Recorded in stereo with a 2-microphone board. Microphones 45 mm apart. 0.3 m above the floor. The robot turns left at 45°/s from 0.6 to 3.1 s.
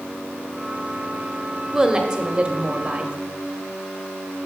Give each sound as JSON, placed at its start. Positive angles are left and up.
{"t": 1.7, "sound": "a woman speaking", "side_deg": -15, "distance_m": 0.9}